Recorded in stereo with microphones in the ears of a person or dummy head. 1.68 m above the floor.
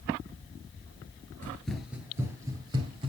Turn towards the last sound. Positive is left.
turn(degrees=-35)  # may be behind; listen again after turning